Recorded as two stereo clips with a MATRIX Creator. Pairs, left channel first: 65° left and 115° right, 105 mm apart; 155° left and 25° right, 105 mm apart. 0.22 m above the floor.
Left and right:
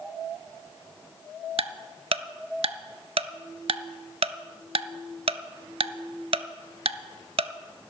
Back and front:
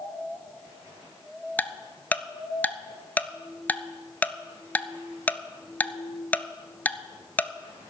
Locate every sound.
1.6 s ticking: 130° right, 0.5 m